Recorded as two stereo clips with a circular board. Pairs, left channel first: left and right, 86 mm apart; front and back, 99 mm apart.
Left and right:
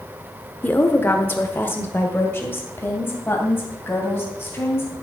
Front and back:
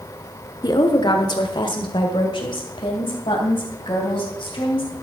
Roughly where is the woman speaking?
Ahead left.